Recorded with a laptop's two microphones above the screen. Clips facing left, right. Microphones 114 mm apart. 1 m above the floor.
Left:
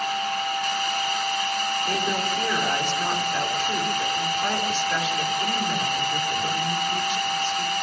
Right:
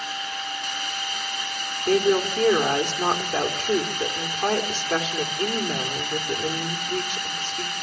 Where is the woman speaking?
50° right (ahead or behind), 3.5 m.